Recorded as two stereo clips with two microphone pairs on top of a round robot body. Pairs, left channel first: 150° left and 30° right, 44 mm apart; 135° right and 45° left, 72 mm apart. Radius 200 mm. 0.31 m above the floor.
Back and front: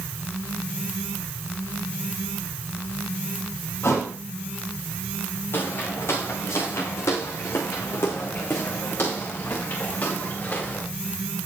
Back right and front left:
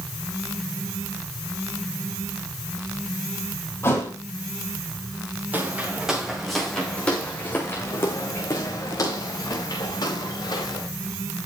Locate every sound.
3.8 s a thud: 165° left, 4.5 m
5.5 s footsteps: 115° left, 3 m; by 10.9 s 165° right, 5.5 m